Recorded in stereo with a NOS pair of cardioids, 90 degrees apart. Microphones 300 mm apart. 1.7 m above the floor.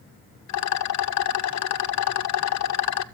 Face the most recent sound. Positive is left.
turn(degrees=65)